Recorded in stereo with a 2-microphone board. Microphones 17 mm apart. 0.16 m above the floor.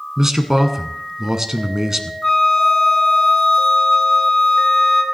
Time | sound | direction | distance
0.2 | a man speaking | 25° right (ahead or behind) | 1.4 m
2.2 | a flute | 30° left (ahead or behind) | 2.5 m